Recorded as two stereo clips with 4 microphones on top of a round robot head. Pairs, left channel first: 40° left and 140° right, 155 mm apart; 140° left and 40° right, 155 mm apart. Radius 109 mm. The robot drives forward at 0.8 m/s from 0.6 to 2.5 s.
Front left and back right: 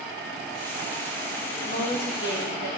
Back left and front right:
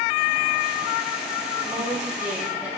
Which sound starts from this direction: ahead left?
A woman speaking, at 1.6 s.